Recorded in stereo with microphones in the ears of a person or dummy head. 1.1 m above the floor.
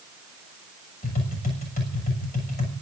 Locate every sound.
1.0 s tapping: 45° left (ahead or behind), 7 m